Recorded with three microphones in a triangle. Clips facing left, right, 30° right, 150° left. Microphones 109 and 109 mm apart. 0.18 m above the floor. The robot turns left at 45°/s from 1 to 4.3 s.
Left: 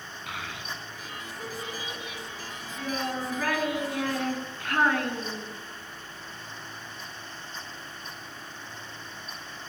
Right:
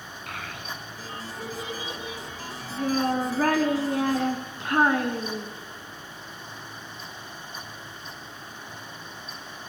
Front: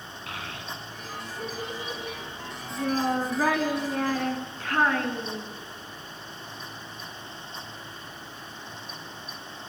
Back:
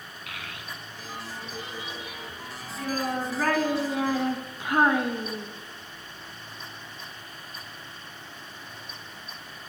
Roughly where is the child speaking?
Ahead.